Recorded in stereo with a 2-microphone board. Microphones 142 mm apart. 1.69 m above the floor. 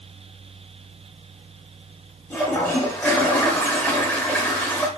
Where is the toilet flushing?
15° left (ahead or behind), 0.8 m.